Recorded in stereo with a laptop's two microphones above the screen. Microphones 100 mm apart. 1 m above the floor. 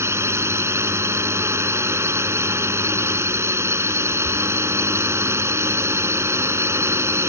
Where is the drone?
25° right (ahead or behind).